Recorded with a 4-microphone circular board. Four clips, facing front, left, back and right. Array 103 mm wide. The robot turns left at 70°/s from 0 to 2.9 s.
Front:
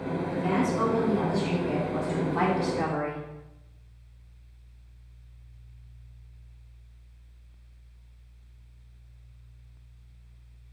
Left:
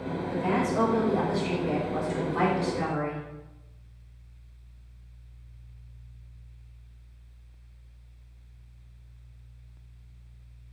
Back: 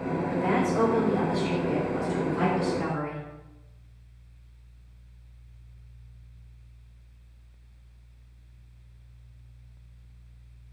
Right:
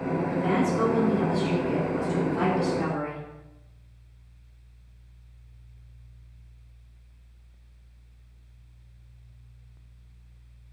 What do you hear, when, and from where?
0.3 s a woman speaking: 165° right, 3 m; by 3.2 s 10° left, 3 m